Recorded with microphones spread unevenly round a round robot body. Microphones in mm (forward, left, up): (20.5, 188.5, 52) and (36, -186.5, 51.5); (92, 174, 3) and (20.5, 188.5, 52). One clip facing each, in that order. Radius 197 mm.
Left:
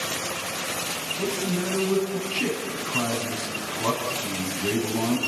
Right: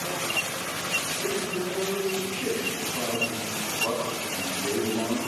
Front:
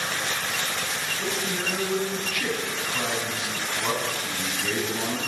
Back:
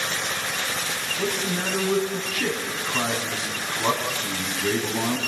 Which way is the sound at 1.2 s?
120° left.